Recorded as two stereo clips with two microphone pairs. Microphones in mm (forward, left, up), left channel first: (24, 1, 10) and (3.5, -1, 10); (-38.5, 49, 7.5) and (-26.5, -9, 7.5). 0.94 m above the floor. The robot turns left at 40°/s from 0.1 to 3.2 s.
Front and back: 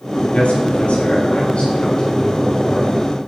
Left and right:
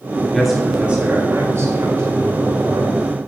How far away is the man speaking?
About 4.5 m.